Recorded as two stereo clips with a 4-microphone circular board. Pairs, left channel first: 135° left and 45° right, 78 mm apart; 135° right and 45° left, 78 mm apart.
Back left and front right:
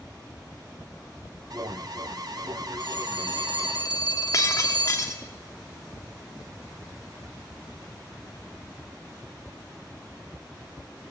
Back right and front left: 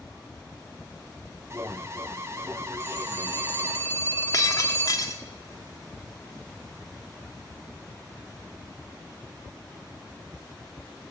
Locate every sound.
1.5 s an alarm: 10° right, 1.8 m
2.8 s a phone ringing: 165° left, 2 m
4.3 s breaking glass: 175° right, 2 m